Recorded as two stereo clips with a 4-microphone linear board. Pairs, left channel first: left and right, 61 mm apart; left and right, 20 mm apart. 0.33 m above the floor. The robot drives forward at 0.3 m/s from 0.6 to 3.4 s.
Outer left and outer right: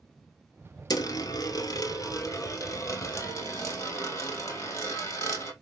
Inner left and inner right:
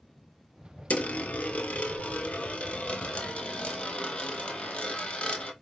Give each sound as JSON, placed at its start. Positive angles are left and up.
{"t": 0.9, "sound": "a dropped coin", "side_deg": 75, "distance_m": 0.7}